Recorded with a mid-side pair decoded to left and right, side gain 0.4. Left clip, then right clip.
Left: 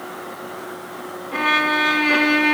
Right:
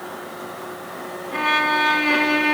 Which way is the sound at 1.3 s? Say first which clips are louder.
Left 1 dB; 15° left.